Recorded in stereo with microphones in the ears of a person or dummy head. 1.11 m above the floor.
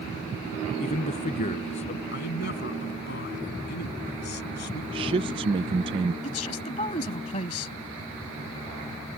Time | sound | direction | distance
0.8 | a man speaking | 35° left (ahead or behind) | ?
2.1 | a man speaking | 50° left (ahead or behind) | ?
4.9 | a man speaking | 25° right (ahead or behind) | ?
6.2 | a man speaking | 35° left (ahead or behind) | ?